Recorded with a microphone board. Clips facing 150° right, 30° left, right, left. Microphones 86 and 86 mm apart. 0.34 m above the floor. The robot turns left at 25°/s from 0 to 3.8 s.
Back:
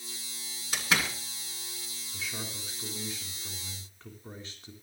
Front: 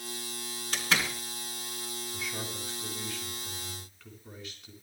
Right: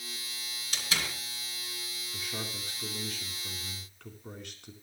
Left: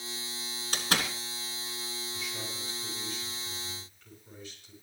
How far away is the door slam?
About 2.5 m.